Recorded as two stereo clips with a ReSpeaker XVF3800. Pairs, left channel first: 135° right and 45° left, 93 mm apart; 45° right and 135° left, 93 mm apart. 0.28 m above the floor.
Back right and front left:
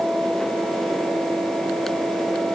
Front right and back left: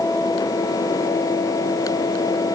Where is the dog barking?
No dog barking in this recording.